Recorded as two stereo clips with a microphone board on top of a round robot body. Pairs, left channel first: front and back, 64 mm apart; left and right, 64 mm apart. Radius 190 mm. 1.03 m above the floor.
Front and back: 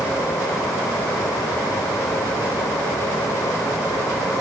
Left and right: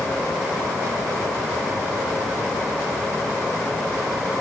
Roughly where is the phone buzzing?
I don't hear a phone buzzing.